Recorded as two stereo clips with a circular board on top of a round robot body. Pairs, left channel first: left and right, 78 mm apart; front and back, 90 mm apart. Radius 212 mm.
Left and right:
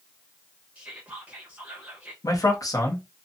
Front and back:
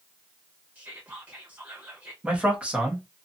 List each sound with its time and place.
0.8 s whispering: 140° right, 1.2 m
2.2 s a man speaking: 105° left, 1.2 m